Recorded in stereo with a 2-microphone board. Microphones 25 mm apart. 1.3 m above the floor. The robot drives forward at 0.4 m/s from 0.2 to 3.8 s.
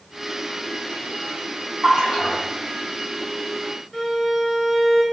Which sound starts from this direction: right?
A splash, at 1.8 s.